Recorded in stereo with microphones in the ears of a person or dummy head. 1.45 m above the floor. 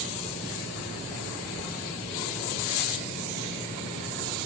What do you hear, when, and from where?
Only background noise.